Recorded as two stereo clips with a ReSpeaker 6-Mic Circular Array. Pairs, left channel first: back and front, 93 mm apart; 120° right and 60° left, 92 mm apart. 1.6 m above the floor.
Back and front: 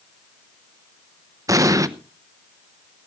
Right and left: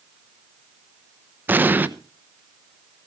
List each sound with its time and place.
1.5 s an explosion: 5° left, 0.8 m